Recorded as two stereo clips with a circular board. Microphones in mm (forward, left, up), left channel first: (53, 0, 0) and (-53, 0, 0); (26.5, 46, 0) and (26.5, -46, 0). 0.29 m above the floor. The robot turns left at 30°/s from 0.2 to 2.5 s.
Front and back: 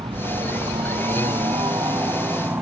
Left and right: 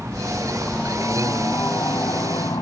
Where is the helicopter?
170° right; by 2.6 s 120° left.